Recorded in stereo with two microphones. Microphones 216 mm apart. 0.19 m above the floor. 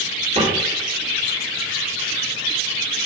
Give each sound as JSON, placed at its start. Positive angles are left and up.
{"t": 0.3, "sound": "a cupboard door", "side_deg": -30, "distance_m": 3.5}